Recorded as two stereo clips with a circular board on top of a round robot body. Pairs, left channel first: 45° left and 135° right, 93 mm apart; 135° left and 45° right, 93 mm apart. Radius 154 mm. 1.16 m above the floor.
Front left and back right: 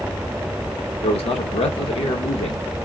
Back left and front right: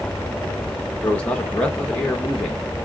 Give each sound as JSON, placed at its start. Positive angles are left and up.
{"t": 1.0, "sound": "a man speaking", "azimuth_deg": 55, "distance_m": 1.5}